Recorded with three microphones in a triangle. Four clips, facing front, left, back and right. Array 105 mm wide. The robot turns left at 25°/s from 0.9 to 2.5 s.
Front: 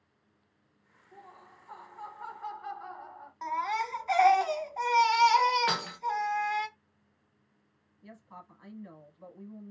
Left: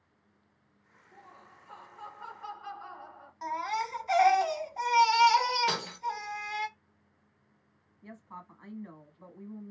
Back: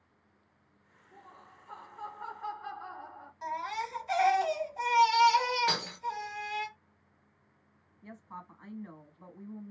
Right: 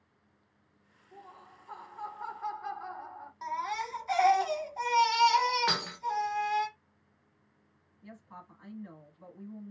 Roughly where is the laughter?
Ahead right.